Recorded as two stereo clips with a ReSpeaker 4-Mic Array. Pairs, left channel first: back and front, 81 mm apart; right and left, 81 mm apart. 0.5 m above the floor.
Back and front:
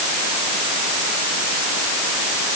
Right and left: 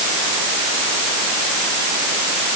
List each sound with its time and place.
Only background noise.